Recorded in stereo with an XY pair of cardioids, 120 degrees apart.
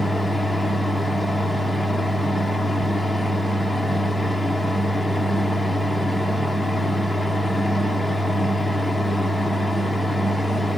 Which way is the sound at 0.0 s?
5° left.